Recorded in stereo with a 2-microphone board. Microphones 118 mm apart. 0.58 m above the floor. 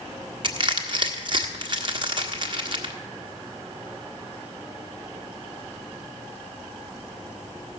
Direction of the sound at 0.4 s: 45° right (ahead or behind).